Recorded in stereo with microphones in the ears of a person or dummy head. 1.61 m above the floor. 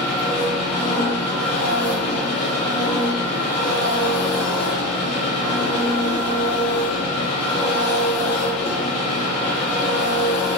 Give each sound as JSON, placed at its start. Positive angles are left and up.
{"t": 0.0, "sound": "an engine running", "side_deg": 45, "distance_m": 1.8}